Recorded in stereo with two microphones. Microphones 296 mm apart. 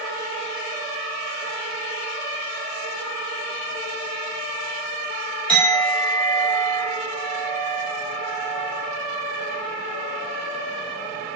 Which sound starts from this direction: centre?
A clink, at 5.5 s.